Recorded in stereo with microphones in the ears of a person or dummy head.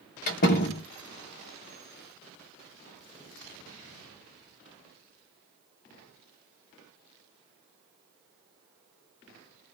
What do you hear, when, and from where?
0.3 s a door slam: 40° left (ahead or behind), 1.4 m